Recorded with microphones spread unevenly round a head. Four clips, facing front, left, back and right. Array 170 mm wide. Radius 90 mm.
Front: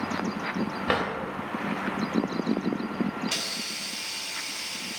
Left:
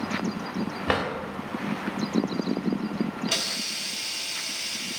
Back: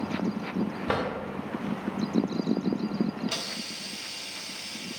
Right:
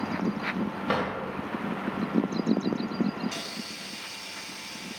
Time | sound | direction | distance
0.9 | a drawer | 80° left | 1.7 m
3.3 | a hiss | 75° left | 1.0 m